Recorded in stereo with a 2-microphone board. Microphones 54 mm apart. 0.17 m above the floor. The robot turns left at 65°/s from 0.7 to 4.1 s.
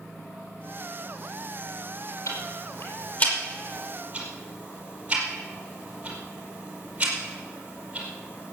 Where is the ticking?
70° left (ahead or behind), 5 m; by 8.5 s 20° right (ahead or behind), 5 m.